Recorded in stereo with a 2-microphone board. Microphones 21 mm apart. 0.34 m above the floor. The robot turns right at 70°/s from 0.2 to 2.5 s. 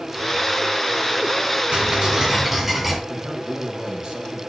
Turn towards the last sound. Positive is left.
turn(degrees=-60)  # may be behind; listen again after turning